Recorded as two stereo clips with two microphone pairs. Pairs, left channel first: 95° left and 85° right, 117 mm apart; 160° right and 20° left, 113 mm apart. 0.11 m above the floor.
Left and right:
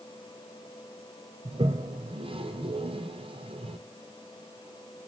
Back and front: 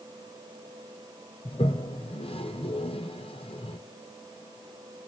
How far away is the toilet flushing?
About 0.8 m.